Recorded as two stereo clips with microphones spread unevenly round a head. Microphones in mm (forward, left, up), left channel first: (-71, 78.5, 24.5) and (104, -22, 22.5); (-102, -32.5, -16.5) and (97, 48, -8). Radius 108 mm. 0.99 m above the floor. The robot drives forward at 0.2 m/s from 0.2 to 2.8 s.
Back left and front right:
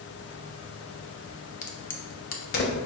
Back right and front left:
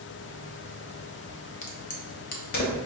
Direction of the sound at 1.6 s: 170° left.